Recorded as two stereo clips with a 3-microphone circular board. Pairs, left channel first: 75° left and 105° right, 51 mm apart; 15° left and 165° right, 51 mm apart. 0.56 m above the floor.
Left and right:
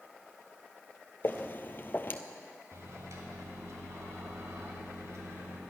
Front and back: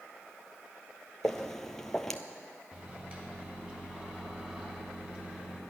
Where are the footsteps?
95° left, 0.7 m.